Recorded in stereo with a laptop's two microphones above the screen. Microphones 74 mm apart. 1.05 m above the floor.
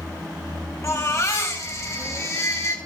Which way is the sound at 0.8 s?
45° left (ahead or behind).